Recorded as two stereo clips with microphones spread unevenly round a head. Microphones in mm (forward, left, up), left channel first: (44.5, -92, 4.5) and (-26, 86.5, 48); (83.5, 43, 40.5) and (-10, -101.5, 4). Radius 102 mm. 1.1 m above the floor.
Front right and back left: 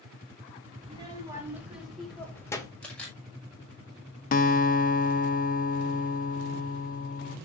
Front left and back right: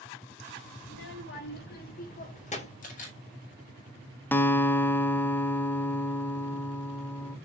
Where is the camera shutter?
15° left, 5.5 m.